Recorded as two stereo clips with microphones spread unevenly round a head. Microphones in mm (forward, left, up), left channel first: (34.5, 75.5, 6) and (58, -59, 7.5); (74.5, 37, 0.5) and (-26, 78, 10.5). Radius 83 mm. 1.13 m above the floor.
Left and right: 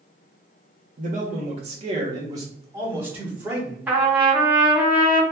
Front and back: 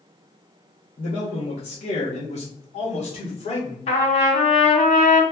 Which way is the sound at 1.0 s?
65° right.